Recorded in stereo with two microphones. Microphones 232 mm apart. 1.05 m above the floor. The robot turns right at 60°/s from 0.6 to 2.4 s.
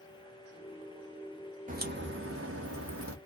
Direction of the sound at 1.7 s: 145° right.